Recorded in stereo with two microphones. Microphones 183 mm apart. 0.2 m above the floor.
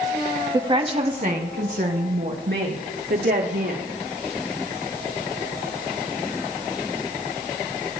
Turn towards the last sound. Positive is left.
turn(degrees=-70)  # may be behind; listen again after turning